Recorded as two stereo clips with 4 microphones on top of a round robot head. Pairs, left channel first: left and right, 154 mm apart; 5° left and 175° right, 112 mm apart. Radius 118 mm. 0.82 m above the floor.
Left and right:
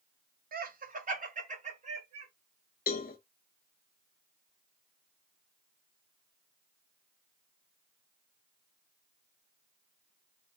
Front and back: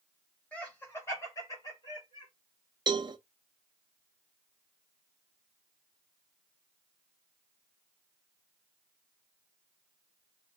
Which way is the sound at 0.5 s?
75° right.